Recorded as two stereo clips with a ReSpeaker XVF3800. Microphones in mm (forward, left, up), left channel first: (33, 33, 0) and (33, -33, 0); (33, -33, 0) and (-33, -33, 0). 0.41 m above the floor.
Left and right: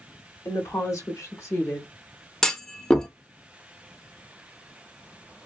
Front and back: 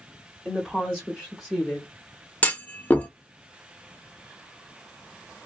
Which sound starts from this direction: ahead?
A clunk, at 2.4 s.